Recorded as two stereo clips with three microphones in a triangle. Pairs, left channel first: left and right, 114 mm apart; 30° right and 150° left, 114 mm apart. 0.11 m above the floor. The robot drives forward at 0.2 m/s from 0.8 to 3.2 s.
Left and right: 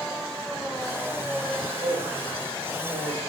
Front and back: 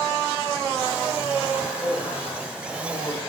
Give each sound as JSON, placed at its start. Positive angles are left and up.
{"t": 1.6, "sound": "a man speaking", "azimuth_deg": -130, "distance_m": 6.5}